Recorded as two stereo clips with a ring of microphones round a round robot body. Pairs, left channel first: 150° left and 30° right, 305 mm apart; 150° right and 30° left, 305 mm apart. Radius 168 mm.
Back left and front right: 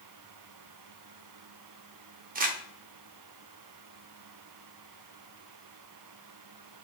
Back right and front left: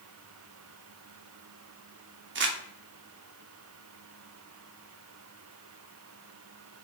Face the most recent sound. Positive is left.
turn(degrees=15)